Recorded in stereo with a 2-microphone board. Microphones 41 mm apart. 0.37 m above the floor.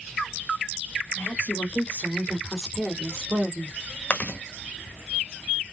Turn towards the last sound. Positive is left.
turn(degrees=35)  # may be behind; listen again after turning